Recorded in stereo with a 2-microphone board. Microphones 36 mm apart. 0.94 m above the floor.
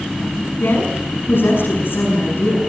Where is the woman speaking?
75° left (ahead or behind), 8.5 m.